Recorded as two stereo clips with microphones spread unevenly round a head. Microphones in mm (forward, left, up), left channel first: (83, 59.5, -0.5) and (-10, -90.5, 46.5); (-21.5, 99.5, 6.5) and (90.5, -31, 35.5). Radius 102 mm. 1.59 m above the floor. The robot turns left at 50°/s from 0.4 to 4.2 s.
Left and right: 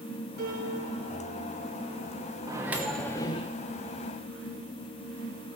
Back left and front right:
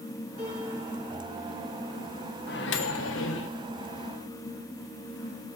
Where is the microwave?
175° left, 0.9 m; by 3.5 s 125° left, 0.9 m.